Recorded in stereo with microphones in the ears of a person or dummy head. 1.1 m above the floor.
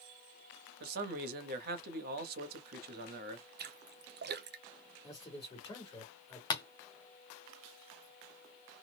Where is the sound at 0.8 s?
50° right (ahead or behind), 1.1 m.